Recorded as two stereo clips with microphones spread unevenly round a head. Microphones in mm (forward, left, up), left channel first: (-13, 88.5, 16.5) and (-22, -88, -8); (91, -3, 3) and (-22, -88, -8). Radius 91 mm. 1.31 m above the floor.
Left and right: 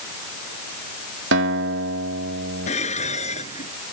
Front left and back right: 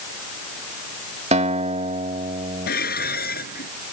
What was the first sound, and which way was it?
A guitar, 105° right.